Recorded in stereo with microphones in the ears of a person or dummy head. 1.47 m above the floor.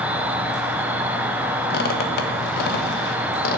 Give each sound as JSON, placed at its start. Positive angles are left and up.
{"t": 0.0, "sound": "an insect", "side_deg": -5, "distance_m": 0.7}
{"t": 1.7, "sound": "a squeak", "side_deg": 60, "distance_m": 1.1}